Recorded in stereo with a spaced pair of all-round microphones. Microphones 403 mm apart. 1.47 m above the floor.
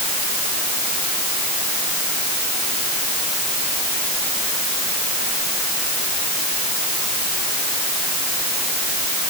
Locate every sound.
Only background noise.